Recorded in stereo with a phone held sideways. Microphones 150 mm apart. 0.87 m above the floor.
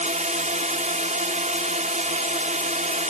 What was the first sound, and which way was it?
A drone, 55° right (ahead or behind).